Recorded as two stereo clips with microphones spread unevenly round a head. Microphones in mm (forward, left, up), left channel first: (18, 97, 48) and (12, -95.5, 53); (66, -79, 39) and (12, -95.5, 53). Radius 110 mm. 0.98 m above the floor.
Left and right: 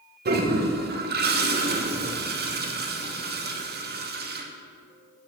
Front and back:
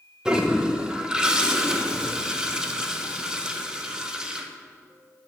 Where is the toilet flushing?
75° right, 1.0 m.